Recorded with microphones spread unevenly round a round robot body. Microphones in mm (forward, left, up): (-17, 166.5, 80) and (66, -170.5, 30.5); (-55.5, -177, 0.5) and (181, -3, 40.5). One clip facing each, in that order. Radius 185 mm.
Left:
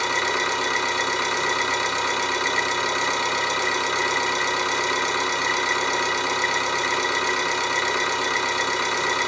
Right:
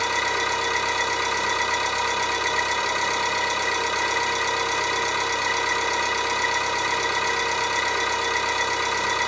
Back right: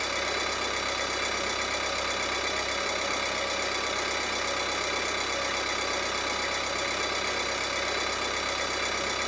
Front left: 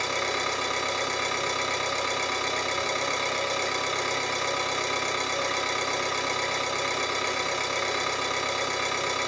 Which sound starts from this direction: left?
An engine running, at 0.0 s.